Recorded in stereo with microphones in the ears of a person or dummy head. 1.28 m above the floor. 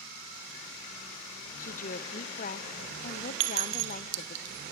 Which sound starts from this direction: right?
A clink, at 3.4 s.